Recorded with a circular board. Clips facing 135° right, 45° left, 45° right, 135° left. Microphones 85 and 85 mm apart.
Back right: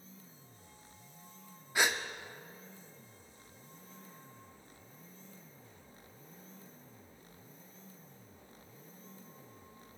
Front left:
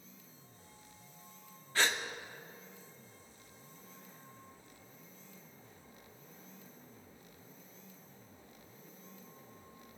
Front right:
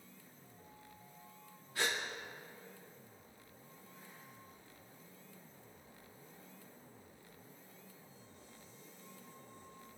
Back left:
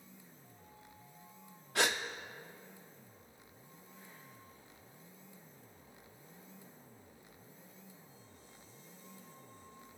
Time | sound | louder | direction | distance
1.8 | a gasp | back right 1 dB, back left 4 dB | 150° left | 0.5 m